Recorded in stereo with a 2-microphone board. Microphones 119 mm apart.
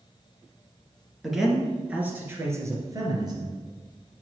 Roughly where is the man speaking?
Centre.